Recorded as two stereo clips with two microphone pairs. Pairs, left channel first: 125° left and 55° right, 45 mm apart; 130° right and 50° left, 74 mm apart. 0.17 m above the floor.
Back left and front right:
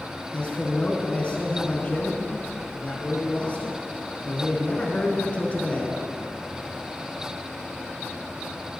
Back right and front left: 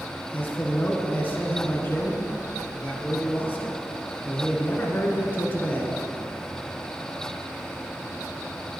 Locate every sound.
0.3 s a man speaking: 175° left, 1.7 m